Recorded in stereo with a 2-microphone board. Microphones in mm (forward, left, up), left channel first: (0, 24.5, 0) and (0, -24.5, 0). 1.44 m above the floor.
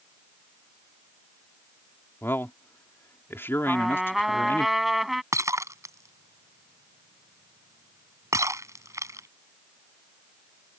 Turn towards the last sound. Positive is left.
turn(degrees=-75)  # may be behind; listen again after turning